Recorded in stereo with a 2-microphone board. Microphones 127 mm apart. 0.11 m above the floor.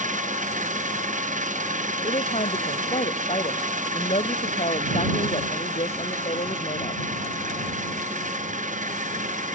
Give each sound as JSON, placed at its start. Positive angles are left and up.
{"t": 0.0, "sound": "an engine running", "side_deg": -85}
{"t": 2.0, "sound": "a woman speaking", "side_deg": 55}